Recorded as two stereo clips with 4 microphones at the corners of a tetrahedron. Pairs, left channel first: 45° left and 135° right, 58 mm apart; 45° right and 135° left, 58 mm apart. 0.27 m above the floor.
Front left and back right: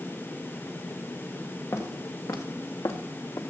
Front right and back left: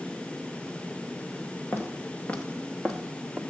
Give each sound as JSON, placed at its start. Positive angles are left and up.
{"t": 1.7, "sound": "footsteps", "azimuth_deg": 10, "distance_m": 2.0}